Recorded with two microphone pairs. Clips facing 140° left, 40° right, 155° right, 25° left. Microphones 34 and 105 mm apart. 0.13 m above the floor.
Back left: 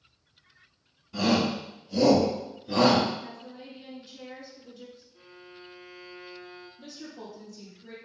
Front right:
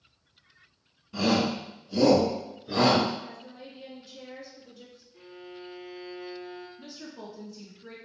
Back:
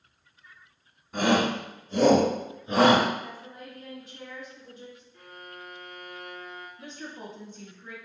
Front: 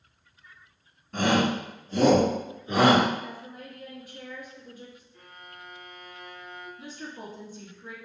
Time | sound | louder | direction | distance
1.1 | a shout | even, even | 90° right | 1.6 m
3.2 | a woman speaking | back left 1 dB, front 1 dB | 145° right | 1.5 m
5.1 | a violin | front right 4 dB, back 3 dB | 70° right | 1.6 m
6.8 | a woman speaking | even, even | 50° right | 1.1 m